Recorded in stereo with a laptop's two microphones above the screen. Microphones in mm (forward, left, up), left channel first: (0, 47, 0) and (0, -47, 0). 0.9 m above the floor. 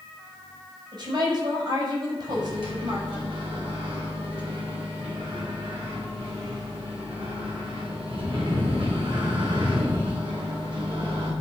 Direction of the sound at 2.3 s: 70° right (ahead or behind).